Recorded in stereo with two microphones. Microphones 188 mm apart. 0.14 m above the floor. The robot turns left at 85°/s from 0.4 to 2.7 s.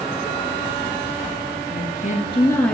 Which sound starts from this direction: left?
A woman speaking, at 1.7 s.